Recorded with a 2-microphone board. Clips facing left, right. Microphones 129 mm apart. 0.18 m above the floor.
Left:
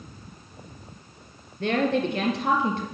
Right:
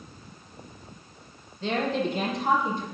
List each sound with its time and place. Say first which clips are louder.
1.6 s a woman speaking: left 3 dB; 60° left (ahead or behind), 3 m; by 2.9 s 70° left (ahead or behind), 3 m